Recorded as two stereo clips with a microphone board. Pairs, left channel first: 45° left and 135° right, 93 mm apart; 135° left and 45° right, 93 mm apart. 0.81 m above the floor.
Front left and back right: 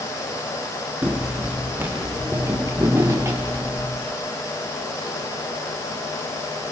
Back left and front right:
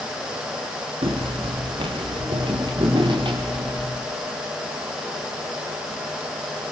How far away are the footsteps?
About 4 m.